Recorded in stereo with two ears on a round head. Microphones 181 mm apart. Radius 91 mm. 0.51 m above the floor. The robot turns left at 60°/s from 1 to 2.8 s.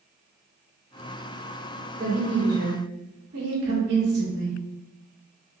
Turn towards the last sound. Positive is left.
turn(degrees=-90)